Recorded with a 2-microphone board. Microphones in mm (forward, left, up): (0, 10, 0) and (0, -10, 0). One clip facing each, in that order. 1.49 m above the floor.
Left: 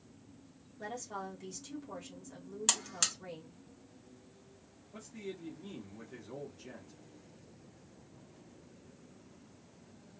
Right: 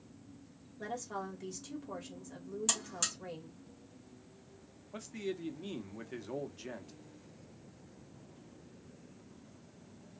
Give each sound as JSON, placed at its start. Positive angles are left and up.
{"t": 0.8, "sound": "a woman speaking", "side_deg": -10, "distance_m": 1.5}
{"t": 2.7, "sound": "a buzzer", "side_deg": 25, "distance_m": 1.0}
{"t": 4.9, "sound": "a man speaking", "side_deg": -40, "distance_m": 0.8}